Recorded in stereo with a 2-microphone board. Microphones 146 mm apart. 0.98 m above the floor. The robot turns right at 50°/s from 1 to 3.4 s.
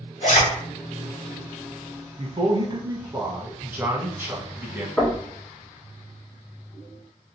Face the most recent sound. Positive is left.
turn(degrees=0)  # may be behind; listen again after turning